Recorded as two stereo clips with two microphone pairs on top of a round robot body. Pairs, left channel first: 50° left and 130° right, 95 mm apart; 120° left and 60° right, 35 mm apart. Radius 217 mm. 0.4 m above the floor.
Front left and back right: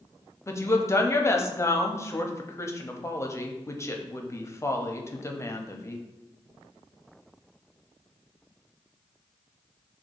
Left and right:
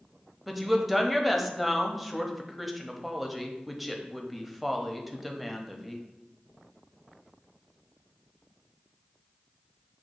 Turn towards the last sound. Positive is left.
turn(degrees=30)